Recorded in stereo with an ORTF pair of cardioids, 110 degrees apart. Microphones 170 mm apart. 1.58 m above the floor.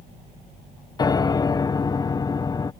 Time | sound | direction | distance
1.0 | a piano | 25° left | ?